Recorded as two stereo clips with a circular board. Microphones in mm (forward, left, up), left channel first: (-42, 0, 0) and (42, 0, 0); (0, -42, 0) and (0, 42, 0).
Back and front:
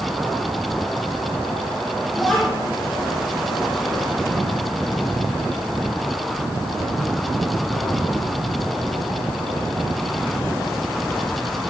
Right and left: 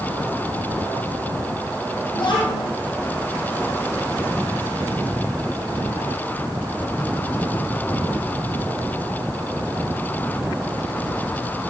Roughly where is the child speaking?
Right.